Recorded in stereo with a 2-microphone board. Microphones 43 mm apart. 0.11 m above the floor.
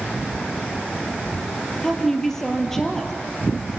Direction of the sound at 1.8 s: 10° left (ahead or behind).